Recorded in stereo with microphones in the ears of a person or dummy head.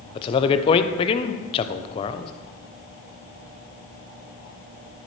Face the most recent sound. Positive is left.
turn(degrees=30)  # may be behind; listen again after turning